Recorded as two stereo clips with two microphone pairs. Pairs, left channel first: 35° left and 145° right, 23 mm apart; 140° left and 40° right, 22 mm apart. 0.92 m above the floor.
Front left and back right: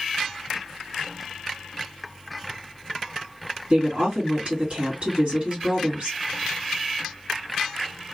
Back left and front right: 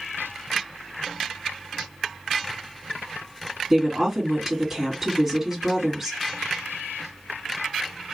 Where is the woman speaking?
110° right, 2.5 m.